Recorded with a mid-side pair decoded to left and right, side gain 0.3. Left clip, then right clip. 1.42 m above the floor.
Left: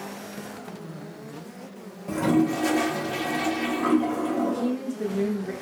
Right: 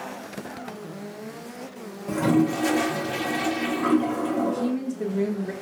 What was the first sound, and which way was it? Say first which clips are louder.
A toilet flushing: right 1 dB; 10° right.